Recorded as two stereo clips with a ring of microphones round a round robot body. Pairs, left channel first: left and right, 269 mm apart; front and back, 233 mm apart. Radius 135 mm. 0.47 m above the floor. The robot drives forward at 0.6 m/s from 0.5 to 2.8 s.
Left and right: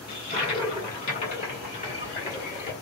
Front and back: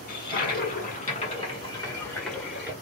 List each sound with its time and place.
0.1 s a toilet flushing: 25° left, 1.7 m; by 2.7 s 110° left, 1.3 m